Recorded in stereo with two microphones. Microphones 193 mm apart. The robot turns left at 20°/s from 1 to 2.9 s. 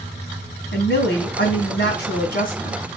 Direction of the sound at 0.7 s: 85° left.